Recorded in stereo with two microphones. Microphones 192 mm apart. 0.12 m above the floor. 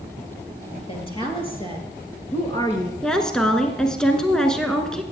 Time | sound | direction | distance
0.9 | a woman speaking | 30° left (ahead or behind) | 2.5 m
3.0 | a woman speaking | 5° left (ahead or behind) | 1.2 m